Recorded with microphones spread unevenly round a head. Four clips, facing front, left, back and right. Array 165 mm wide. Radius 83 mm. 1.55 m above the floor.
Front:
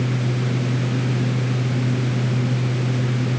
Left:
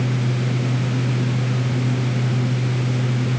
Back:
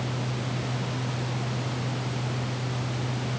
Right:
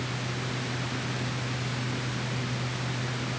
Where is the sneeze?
I don't hear a sneeze.